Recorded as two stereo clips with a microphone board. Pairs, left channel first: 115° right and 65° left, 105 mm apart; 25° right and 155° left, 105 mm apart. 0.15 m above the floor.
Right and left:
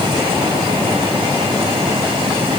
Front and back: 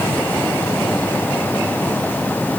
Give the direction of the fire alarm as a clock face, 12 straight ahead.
I don't hear a fire alarm.